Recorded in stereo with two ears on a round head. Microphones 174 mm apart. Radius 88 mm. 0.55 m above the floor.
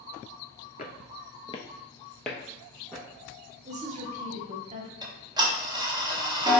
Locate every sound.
0.8 s footsteps: 40° left (ahead or behind), 0.7 m; by 3.0 s 5° right (ahead or behind), 1.4 m
3.6 s a woman speaking: 35° right (ahead or behind), 0.9 m
5.0 s ticking: 20° right (ahead or behind), 0.7 m